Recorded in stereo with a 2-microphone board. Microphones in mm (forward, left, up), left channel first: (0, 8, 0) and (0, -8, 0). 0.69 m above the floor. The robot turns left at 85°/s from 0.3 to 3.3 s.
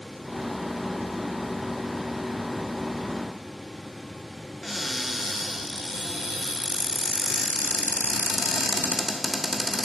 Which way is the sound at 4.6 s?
10° left (ahead or behind).